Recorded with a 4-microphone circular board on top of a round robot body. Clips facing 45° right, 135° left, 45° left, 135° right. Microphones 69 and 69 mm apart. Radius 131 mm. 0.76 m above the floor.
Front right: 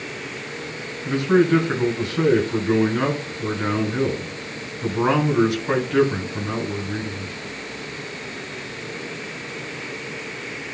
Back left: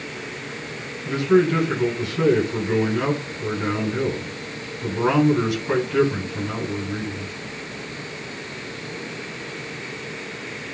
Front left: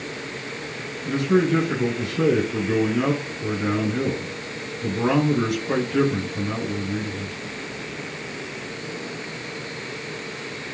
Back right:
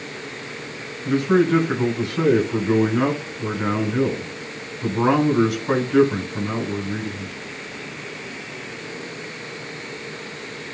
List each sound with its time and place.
1.1 s a man speaking: 105° right, 6.5 m